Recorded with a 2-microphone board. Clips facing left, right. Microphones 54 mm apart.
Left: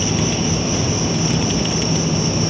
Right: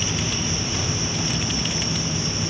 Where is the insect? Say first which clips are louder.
Left 7 dB; 70° left (ahead or behind), 1.9 m.